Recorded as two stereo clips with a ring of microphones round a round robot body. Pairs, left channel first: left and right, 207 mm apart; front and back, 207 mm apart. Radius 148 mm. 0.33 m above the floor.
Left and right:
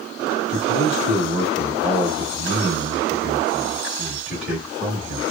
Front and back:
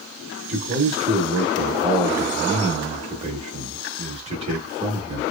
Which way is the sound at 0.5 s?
170° right.